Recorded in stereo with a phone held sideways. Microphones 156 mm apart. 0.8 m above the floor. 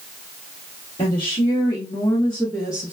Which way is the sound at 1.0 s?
40° left (ahead or behind).